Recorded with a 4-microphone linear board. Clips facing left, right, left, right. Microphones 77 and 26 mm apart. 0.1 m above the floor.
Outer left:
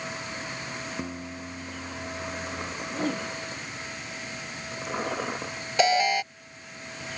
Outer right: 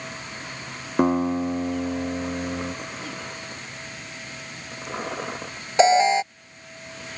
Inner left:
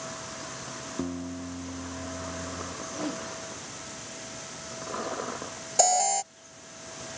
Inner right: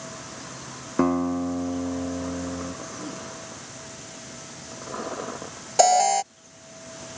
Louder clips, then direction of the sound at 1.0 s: Outer right 15 dB, inner right 13 dB; 60° right (ahead or behind).